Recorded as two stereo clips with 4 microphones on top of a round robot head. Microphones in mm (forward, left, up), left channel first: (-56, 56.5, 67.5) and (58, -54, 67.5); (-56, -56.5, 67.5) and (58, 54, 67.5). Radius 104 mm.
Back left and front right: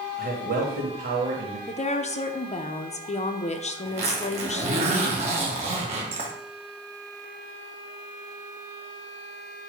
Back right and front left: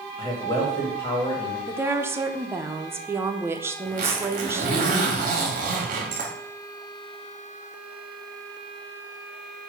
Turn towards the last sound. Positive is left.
turn(degrees=5)